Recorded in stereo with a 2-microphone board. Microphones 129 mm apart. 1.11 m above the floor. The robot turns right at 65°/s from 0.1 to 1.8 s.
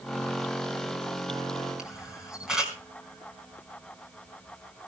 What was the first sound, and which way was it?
A camera shutter, 5° right (ahead or behind).